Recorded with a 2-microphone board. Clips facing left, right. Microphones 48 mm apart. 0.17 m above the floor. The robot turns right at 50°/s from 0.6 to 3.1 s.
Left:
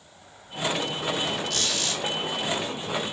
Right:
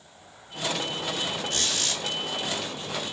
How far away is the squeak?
About 1.8 m.